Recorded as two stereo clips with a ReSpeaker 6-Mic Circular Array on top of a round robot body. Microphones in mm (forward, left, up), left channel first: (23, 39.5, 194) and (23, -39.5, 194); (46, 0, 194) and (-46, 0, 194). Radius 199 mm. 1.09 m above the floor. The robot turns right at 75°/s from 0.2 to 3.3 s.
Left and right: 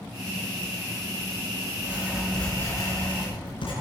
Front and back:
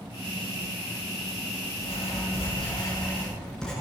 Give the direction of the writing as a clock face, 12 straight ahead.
1 o'clock.